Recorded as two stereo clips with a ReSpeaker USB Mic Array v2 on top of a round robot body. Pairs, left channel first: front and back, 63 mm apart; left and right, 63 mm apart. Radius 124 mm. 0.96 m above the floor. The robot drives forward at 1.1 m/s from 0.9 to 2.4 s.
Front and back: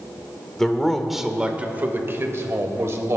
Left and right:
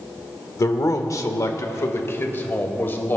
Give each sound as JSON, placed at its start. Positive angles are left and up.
{"t": 0.6, "sound": "a man speaking", "azimuth_deg": 85, "distance_m": 1.4}